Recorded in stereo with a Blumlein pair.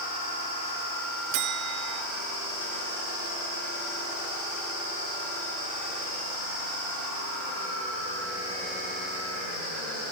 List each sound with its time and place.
1.3 s a bell: 40° right, 0.9 m